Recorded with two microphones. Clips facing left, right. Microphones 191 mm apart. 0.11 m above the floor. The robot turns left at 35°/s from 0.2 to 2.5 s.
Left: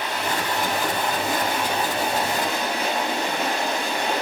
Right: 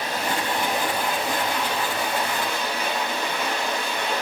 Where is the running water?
145° right, 4.5 m; by 4.2 s 135° left, 4.5 m.